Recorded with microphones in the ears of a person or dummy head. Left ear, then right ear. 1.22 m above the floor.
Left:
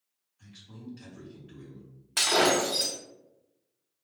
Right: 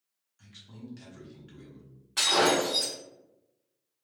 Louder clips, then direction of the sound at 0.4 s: Even; 60° right (ahead or behind).